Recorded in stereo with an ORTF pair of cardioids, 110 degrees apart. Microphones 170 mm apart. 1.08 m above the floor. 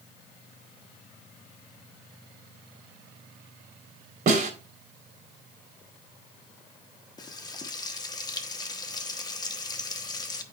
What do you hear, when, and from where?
4.3 s a snare drum: 65° right, 3 m
7.2 s frying: 25° left, 1.0 m